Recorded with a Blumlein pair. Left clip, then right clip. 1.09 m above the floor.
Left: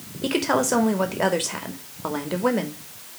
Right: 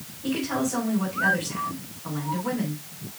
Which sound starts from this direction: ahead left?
A woman speaking, at 0.2 s.